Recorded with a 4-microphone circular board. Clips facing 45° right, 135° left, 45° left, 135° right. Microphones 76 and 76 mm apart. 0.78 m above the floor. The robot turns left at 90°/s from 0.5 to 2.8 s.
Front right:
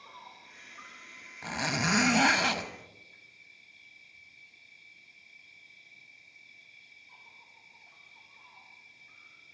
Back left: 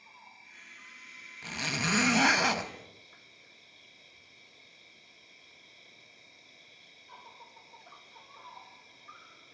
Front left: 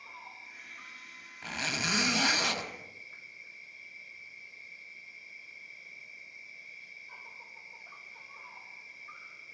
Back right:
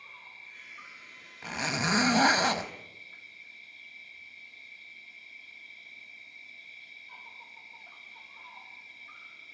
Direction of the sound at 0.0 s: 35° right.